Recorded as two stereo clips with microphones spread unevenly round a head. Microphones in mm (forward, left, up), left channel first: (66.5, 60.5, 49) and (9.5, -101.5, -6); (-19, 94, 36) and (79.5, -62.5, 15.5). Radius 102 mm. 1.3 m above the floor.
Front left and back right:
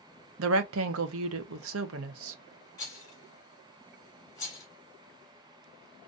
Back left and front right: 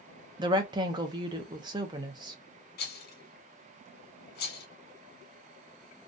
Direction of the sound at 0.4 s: 130° right.